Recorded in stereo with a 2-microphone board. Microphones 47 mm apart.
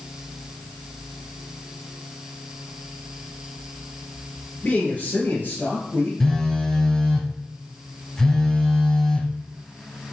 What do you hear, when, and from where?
4.6 s a man speaking: 25° left (ahead or behind), 1.6 m; by 6.1 s 50° left (ahead or behind), 2.5 m
6.2 s a phone buzzing: 10° left (ahead or behind), 0.9 m